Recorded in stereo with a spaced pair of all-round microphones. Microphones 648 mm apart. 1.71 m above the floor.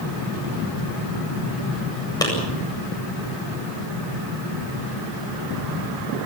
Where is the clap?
5° left (ahead or behind), 8.5 m.